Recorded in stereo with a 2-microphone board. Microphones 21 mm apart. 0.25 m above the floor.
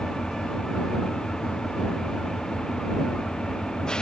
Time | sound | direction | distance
0.0 | an engine running | 40° left (ahead or behind) | ?